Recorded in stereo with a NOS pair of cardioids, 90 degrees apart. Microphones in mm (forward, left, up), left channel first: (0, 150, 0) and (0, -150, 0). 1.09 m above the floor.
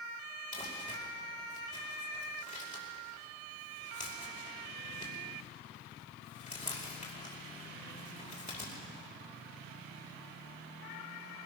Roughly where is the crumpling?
Ahead left.